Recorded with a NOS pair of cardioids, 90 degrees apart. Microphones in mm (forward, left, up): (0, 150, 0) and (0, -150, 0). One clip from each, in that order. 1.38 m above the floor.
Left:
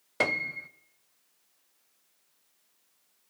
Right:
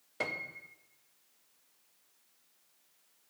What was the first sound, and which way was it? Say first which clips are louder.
A piano: left 9 dB; 40° left.